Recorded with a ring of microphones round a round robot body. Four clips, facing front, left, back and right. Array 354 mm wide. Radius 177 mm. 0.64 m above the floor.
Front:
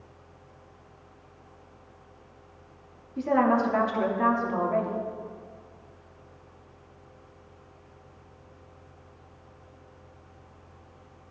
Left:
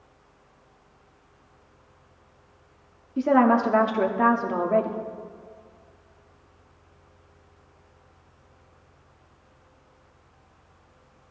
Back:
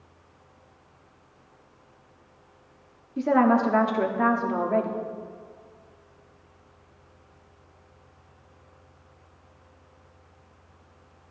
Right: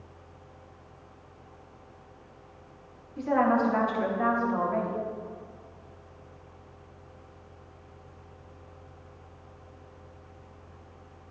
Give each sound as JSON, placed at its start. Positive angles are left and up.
{"t": 3.2, "sound": "a woman speaking", "azimuth_deg": 115, "distance_m": 1.3}